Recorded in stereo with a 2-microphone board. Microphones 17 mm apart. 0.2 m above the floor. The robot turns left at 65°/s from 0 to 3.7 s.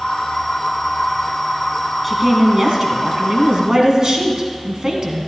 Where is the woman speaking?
5° right, 1.4 m; by 5.3 s 115° right, 1.4 m.